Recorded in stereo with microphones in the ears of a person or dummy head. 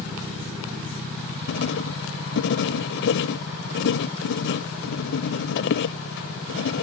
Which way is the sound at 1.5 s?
60° left (ahead or behind).